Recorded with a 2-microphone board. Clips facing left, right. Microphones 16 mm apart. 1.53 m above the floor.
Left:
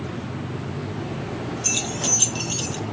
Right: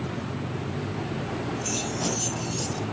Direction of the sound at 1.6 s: 35° left (ahead or behind).